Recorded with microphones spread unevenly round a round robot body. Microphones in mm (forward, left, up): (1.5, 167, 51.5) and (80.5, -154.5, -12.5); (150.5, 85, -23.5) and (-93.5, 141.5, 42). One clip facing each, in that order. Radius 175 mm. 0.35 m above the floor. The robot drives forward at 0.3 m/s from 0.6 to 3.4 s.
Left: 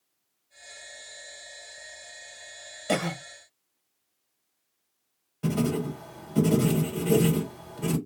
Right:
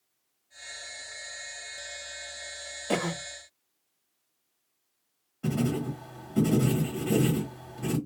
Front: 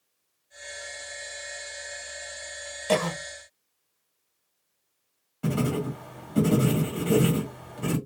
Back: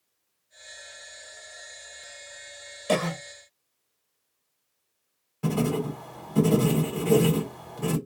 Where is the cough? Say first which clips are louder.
Left 1 dB, even; 100° left, 1.8 m.